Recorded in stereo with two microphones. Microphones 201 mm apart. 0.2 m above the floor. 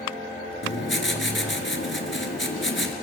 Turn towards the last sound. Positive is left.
turn(degrees=70)  # may be behind; listen again after turning